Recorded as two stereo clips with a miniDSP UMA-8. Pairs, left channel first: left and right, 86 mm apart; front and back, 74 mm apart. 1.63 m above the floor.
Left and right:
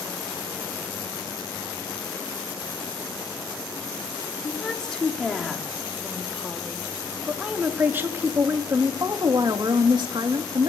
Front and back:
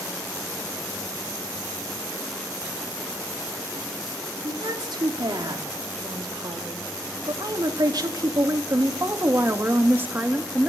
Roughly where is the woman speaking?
Behind.